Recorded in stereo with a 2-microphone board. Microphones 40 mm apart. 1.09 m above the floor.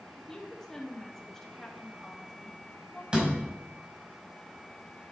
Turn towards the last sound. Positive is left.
turn(degrees=-25)  # may be behind; listen again after turning